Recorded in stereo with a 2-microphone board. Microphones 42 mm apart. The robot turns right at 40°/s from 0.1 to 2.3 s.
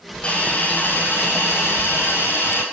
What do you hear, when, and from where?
0.2 s a hiss: 25° left, 3 m; by 2.6 s 110° left, 3 m